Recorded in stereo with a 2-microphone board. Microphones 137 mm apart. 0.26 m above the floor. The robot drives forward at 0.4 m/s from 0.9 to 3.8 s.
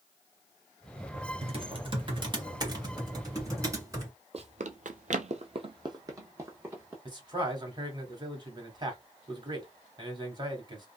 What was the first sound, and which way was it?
Typing on a keyboard, 40° right (ahead or behind).